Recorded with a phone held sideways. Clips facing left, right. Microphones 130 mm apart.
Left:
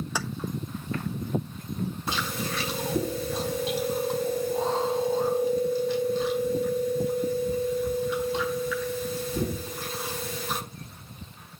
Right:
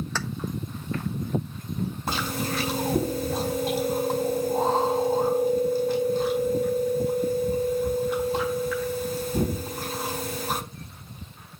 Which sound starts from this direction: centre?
Keys jangling, at 0.1 s.